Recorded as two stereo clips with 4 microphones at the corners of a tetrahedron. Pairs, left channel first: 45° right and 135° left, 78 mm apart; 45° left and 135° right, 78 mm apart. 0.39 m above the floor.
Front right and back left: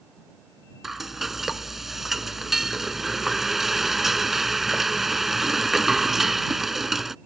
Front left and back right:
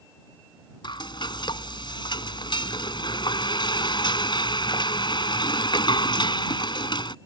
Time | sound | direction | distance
0.8 | frying | 50° left | ?